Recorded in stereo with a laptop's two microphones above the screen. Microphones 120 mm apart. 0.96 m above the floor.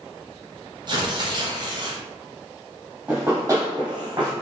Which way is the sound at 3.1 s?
15° right (ahead or behind).